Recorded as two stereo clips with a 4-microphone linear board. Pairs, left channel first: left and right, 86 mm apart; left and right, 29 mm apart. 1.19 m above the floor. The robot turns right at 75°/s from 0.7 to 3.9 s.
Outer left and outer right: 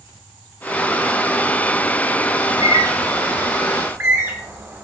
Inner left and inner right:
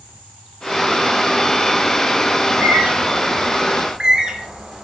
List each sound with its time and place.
2.4 s a bird: 30° right (ahead or behind), 1.2 m